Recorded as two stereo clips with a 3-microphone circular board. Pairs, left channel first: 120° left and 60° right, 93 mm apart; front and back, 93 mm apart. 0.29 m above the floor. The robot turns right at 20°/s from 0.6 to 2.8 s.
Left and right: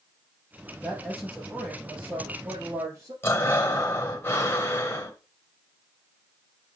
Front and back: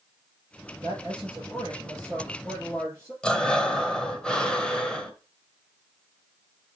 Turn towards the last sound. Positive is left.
turn(degrees=75)